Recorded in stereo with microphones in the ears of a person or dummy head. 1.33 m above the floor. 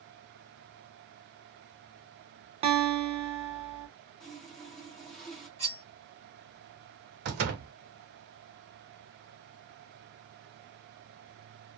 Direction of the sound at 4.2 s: 5° left (ahead or behind).